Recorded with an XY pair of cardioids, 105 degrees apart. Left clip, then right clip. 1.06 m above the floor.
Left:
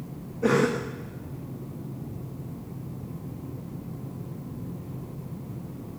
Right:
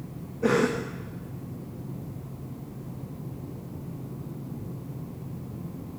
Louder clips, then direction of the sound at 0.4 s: Left 1 dB; straight ahead.